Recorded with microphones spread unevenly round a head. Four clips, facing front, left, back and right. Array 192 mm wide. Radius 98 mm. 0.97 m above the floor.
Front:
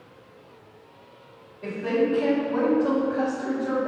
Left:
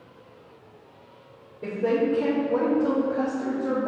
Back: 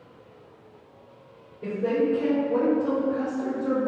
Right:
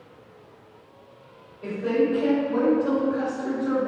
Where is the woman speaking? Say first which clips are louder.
Even, even; 125° left, 3 m.